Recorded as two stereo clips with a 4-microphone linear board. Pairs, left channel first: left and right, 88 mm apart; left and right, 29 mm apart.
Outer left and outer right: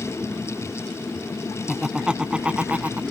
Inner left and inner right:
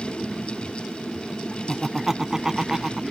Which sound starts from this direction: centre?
Laughter, at 1.7 s.